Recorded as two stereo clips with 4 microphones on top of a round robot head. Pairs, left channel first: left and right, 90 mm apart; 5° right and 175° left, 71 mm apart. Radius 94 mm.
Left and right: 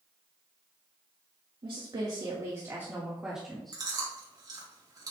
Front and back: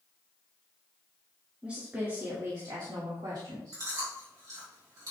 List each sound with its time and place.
1.6 s a woman speaking: 110° right, 2.5 m; by 3.8 s 175° left, 2.5 m
3.7 s chewing: 140° right, 3.5 m